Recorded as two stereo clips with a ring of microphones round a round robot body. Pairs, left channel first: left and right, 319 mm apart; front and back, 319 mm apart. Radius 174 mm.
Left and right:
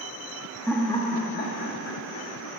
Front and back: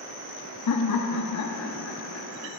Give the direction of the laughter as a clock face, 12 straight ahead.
12 o'clock.